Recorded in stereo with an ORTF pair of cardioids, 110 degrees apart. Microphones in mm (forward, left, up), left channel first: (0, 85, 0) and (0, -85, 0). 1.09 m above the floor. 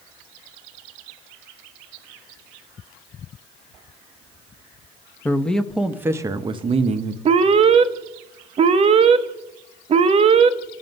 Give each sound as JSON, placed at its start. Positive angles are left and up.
{"t": 5.2, "sound": "a man speaking", "azimuth_deg": 10, "distance_m": 1.0}
{"t": 7.2, "sound": "an alarm", "azimuth_deg": -35, "distance_m": 0.8}